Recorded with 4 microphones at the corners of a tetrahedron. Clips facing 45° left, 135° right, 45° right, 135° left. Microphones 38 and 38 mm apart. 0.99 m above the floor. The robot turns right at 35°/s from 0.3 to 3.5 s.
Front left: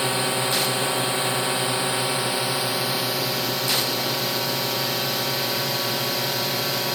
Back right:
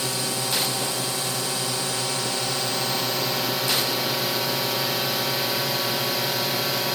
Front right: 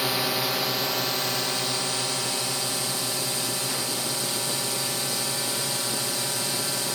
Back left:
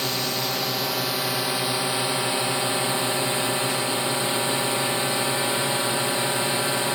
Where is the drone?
30° left; by 7.0 s 140° left.